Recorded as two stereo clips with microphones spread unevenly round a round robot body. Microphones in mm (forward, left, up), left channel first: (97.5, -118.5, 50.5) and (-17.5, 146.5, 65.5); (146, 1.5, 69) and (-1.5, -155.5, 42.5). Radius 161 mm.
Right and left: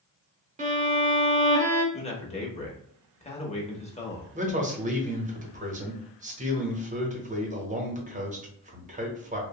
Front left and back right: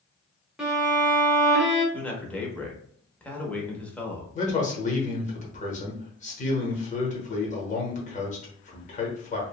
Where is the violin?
160° left, 0.8 m.